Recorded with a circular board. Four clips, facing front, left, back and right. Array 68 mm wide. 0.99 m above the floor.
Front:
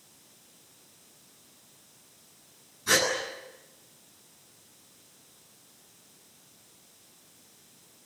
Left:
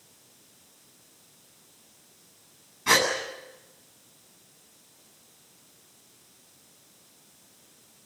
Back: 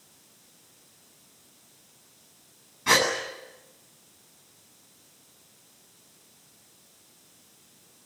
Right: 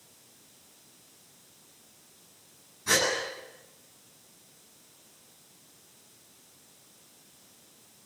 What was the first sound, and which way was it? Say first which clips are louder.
A gasp: left 4 dB, back 3 dB; 145° left.